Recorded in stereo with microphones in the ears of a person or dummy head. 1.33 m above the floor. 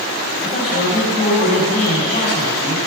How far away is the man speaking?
About 7 m.